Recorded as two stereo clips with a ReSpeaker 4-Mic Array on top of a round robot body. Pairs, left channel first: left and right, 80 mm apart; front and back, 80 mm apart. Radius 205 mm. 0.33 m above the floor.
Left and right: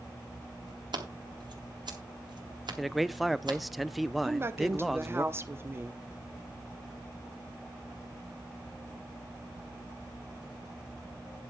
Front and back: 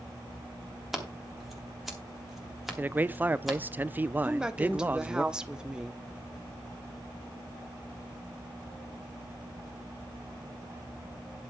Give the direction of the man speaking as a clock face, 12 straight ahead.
6 o'clock.